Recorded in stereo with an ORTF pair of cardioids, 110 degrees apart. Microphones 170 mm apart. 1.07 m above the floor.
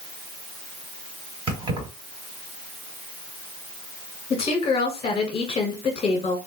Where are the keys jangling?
30° right, 1.9 m.